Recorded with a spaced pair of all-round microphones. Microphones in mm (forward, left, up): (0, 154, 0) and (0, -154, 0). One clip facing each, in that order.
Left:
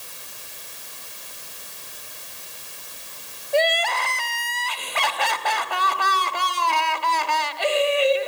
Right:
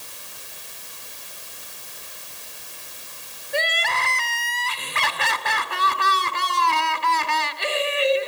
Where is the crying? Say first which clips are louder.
Left 6 dB; 25° right (ahead or behind), 1.8 m.